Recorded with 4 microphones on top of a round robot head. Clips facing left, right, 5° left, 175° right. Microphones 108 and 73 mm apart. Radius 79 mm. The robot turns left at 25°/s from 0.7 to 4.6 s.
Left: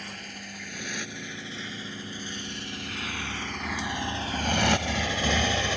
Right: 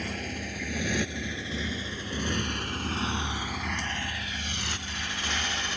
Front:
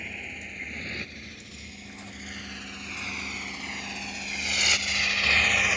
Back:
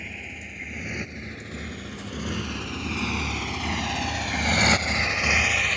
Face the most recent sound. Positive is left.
turn(degrees=80)